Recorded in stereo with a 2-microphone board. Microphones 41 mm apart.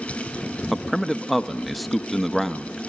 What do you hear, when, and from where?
0.7 s a man speaking: 5° left (ahead or behind), 0.8 m